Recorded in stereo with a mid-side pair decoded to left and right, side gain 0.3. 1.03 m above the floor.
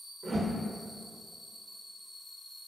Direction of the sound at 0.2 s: 65° right.